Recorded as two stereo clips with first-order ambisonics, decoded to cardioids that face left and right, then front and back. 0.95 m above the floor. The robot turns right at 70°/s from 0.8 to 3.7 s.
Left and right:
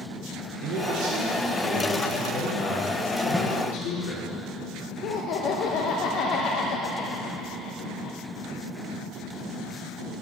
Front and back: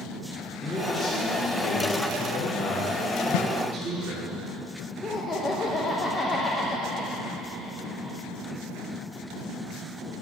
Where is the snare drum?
Straight ahead, 0.5 m; by 3.5 s 10° left, 0.5 m.